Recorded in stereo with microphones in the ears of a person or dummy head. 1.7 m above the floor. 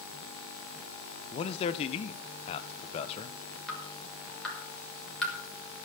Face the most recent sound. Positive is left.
turn(degrees=0)  # may be behind; listen again after turning